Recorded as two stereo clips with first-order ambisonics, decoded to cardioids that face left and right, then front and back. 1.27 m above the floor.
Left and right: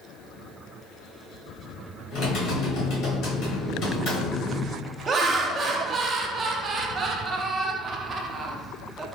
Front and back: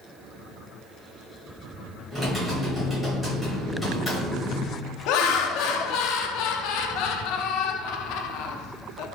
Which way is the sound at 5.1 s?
25° right.